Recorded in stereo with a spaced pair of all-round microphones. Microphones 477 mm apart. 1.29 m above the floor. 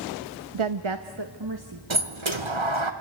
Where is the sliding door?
75° right (ahead or behind), 1.6 m.